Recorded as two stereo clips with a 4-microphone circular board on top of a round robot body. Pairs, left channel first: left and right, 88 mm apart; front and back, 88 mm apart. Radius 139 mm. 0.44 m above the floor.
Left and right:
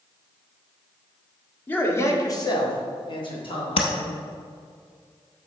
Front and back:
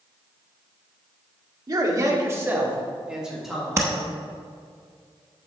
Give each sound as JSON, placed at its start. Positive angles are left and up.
{"t": 1.7, "sound": "a man speaking", "azimuth_deg": 155, "distance_m": 1.7}
{"t": 3.8, "sound": "tapping", "azimuth_deg": 115, "distance_m": 0.7}